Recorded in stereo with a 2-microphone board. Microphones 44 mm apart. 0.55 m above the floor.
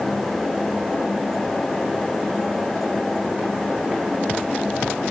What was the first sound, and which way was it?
Only background noise.